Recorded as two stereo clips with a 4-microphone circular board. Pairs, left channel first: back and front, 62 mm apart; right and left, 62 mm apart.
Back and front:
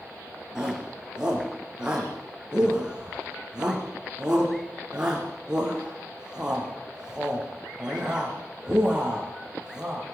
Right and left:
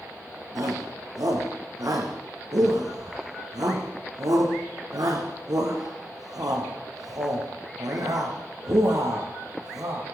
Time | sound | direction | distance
0.6 | a shout | 75° left | 6 m